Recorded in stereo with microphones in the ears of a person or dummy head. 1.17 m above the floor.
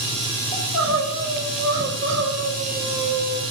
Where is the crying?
65° right (ahead or behind), 6 m.